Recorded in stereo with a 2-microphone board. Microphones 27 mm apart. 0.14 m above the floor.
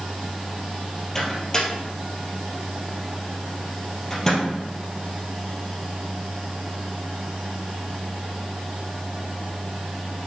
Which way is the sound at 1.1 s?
25° left (ahead or behind).